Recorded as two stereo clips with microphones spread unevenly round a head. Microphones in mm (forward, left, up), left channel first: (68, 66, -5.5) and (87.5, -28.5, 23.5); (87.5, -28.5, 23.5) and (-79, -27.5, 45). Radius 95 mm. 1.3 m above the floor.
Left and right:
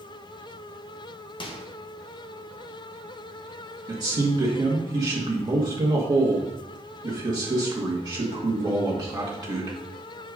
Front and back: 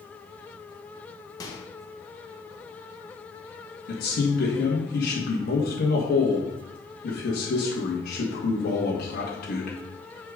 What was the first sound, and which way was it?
A microwave, 70° left.